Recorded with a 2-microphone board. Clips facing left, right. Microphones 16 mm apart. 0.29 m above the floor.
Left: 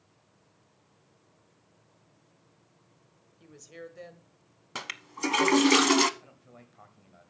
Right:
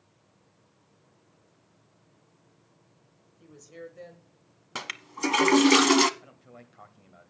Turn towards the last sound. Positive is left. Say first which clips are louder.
# right 3 dB
turn(degrees=-10)  # may be behind; listen again after turning